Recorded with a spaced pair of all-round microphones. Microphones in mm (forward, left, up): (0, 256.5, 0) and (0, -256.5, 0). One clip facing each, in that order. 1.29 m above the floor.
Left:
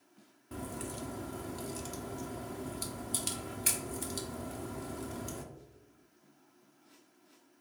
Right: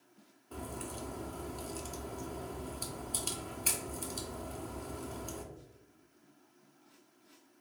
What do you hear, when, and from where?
0.5 s a crack: 45° left (ahead or behind), 0.5 m